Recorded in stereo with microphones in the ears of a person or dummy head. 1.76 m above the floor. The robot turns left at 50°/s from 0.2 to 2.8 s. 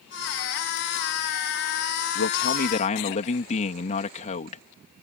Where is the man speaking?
70° left; by 4.6 s 40° left.